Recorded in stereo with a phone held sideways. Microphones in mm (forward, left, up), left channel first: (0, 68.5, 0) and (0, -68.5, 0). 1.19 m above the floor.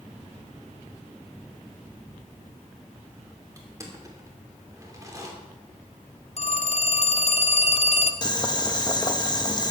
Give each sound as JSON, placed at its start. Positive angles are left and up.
{"t": 3.6, "sound": "crushing", "side_deg": -25, "distance_m": 2.5}
{"t": 6.4, "sound": "a phone ringing", "side_deg": 55, "distance_m": 0.7}
{"t": 8.2, "sound": "boiling", "side_deg": 30, "distance_m": 1.0}